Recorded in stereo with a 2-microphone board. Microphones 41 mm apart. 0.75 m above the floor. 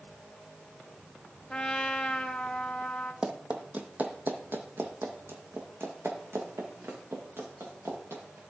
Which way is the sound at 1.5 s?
20° left (ahead or behind).